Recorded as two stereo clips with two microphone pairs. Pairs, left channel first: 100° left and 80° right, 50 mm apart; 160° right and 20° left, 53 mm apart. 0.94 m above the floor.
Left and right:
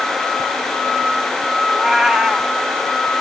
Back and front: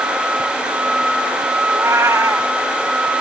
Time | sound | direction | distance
1.7 | a cat meowing | 5° right | 0.7 m